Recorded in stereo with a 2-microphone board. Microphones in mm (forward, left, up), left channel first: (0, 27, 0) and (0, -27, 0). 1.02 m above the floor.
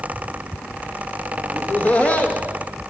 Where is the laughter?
25° left (ahead or behind), 1.4 m.